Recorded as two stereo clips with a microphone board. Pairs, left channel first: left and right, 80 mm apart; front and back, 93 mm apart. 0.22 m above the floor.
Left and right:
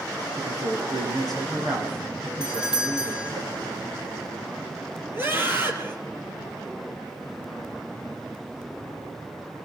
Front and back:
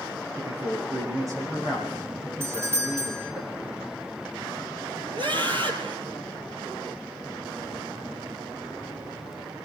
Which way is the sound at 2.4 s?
160° right.